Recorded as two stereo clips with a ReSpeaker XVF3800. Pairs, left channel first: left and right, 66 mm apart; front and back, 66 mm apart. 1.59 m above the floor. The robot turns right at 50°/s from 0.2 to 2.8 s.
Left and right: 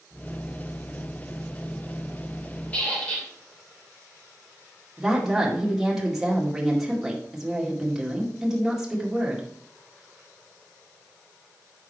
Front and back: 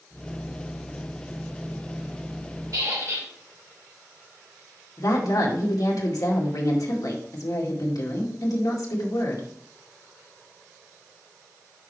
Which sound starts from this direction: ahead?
A woman speaking, at 5.0 s.